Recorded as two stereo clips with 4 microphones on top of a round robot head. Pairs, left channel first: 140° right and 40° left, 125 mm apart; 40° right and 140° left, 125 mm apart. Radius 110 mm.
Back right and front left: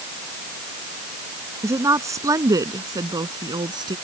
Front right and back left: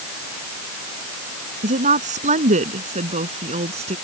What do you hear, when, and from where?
1.6 s a woman speaking: 110° left; by 4.0 s 100° left